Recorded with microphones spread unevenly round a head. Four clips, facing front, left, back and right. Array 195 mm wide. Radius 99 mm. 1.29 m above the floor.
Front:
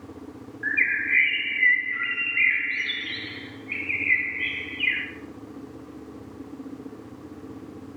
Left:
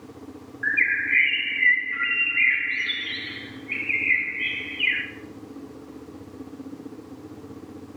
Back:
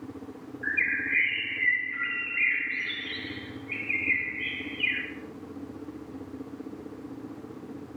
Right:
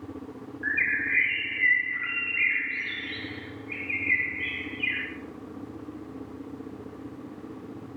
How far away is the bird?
About 1.9 m.